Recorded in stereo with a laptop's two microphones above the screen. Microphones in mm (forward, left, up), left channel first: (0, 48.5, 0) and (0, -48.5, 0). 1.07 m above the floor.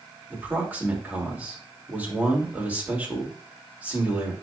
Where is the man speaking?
15° right (ahead or behind), 3 m.